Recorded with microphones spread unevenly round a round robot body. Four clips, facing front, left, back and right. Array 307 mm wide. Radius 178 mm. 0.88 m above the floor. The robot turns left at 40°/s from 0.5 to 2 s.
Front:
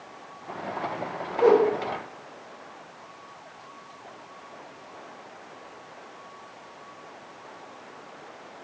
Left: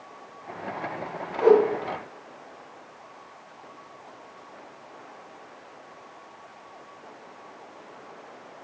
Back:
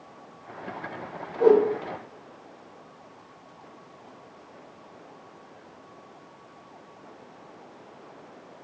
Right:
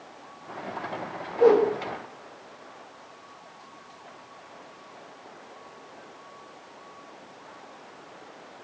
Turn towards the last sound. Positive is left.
turn(degrees=-135)